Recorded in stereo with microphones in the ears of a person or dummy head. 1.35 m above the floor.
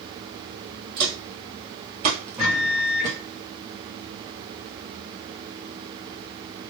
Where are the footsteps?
45° right (ahead or behind), 2.0 m; by 3.2 s 5° right (ahead or behind), 1.3 m.